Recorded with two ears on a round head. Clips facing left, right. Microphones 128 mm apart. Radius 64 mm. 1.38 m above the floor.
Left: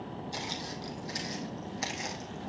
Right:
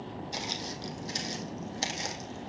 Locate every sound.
0.3 s footsteps: 20° right (ahead or behind), 2.5 m; by 2.5 s 40° right (ahead or behind), 3 m